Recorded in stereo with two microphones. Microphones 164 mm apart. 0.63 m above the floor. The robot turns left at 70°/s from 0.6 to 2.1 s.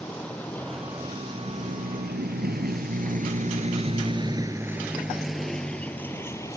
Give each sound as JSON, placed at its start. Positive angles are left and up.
{"t": 0.0, "sound": "a vehicle", "side_deg": 5}